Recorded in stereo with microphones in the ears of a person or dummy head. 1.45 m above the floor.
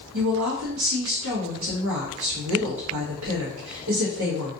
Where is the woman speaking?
75° right (ahead or behind), 1.0 m.